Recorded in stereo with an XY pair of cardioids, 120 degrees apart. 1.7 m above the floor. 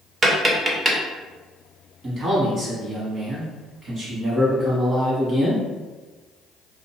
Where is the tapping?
30° right, 0.6 m.